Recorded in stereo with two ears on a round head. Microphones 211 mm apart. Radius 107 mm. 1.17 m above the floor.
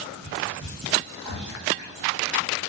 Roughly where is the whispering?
Right.